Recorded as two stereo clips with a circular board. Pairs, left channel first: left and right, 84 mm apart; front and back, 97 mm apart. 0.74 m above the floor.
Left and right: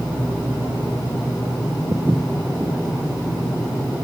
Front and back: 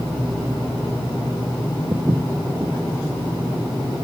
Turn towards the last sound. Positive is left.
turn(degrees=-135)